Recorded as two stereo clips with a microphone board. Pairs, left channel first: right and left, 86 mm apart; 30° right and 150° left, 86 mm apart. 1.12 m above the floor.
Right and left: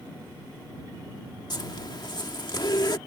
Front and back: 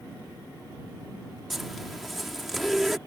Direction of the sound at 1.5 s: 120° right.